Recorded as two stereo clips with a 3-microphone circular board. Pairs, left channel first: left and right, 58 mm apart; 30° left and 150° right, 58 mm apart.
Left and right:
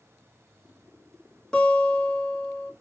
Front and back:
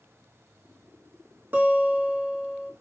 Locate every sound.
1.5 s a guitar: 165° left, 1.0 m